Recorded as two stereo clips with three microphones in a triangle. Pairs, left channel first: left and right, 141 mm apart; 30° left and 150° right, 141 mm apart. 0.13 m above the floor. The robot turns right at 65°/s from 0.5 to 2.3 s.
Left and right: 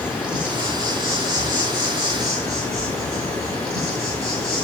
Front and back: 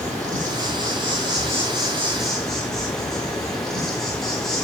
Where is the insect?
175° right, 5 m; by 4.6 s 55° right, 5 m.